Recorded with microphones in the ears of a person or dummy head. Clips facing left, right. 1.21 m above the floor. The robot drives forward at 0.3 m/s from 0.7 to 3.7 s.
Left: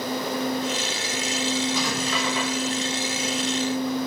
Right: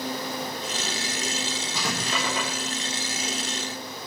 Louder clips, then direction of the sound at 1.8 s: Left 4 dB; 30° right (ahead or behind).